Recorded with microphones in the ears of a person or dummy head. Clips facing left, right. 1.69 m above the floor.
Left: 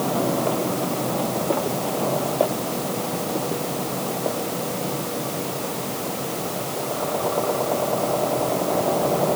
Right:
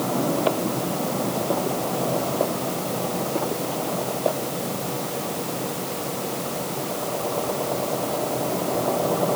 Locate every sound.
Only background noise.